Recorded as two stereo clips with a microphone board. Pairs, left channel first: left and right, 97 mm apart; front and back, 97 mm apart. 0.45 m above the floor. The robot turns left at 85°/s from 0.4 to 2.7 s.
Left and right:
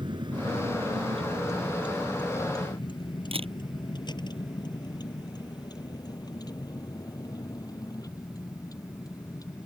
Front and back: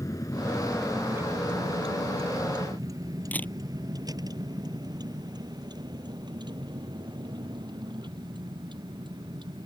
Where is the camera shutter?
75° right.